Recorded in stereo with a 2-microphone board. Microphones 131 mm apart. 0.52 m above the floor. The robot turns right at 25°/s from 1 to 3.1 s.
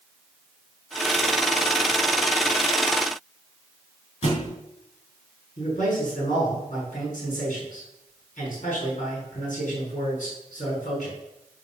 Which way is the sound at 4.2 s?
60° left (ahead or behind).